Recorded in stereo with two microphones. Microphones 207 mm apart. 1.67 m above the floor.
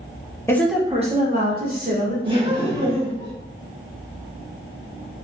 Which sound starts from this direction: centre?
A woman speaking, at 0.5 s.